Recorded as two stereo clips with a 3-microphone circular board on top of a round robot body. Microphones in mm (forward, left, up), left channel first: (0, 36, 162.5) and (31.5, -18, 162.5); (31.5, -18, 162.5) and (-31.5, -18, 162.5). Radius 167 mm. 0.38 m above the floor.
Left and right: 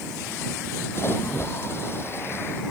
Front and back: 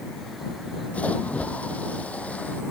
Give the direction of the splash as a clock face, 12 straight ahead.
10 o'clock.